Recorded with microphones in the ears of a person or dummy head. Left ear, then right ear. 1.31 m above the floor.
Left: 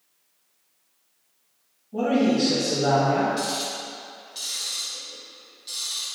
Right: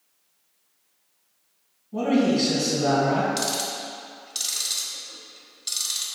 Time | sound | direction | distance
1.9 | a man speaking | 25° right (ahead or behind) | 1.6 m
3.4 | ticking | 35° right (ahead or behind) | 0.9 m